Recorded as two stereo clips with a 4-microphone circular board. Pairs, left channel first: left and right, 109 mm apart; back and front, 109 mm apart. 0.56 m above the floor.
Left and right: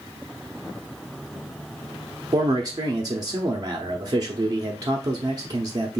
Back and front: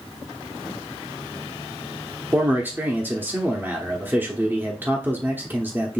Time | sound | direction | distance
2.3 | a man speaking | 60° right | 0.7 m